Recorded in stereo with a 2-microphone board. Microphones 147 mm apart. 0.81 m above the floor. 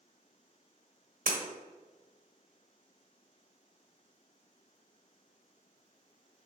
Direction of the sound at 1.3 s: 70° right (ahead or behind).